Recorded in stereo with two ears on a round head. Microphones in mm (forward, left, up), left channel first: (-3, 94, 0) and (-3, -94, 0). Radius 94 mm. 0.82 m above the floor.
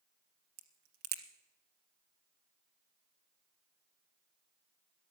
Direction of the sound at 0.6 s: 50° right (ahead or behind).